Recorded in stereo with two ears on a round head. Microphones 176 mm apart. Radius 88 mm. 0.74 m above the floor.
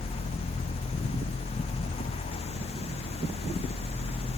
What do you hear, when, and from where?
Only background noise.